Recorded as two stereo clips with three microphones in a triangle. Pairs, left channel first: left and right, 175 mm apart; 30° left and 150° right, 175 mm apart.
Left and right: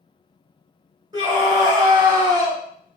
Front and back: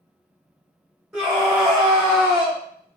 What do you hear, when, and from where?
1.1 s a scream: 70° right, 1.3 m